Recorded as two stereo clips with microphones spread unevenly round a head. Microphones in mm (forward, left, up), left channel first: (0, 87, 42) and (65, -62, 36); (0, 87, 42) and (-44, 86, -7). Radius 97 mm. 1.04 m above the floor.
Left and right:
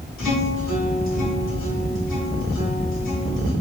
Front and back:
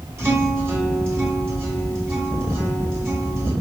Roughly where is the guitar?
Behind left.